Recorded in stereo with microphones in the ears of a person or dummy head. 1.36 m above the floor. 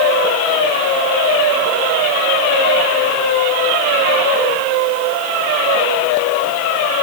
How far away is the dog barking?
I don't hear a dog barking.